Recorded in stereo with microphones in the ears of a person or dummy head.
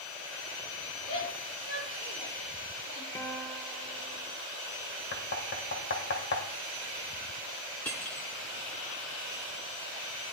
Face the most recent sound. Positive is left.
turn(degrees=10)  # may be behind; listen again after turning